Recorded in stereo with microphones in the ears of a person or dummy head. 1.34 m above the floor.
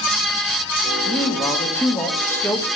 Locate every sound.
1.1 s a man speaking: 20° left (ahead or behind), 2.5 m